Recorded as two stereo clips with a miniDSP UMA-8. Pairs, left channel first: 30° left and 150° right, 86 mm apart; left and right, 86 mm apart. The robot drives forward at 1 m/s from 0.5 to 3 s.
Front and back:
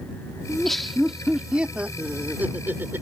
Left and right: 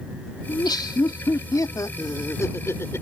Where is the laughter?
115° left; by 3.0 s 150° left.